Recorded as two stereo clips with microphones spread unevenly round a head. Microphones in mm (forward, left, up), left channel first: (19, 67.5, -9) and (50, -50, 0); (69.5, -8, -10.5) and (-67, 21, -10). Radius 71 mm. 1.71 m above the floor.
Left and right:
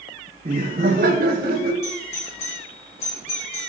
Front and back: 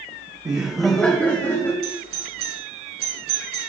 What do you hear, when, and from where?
0.5 s laughter: 125° right, 1.2 m; by 1.7 s 75° right, 2.5 m
1.8 s a doorbell: 155° left, 4 m